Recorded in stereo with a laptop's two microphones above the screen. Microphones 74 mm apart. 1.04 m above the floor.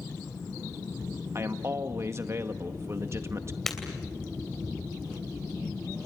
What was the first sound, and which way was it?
A man speaking, 40° right (ahead or behind).